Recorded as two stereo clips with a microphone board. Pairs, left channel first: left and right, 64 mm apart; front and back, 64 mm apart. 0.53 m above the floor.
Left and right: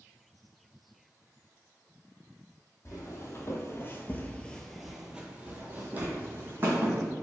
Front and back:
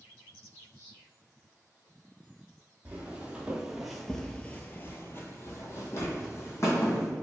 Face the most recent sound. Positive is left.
turn(degrees=-40)